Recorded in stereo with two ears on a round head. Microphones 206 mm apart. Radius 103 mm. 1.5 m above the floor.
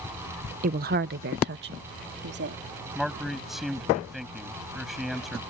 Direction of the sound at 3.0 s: Centre (ahead or behind).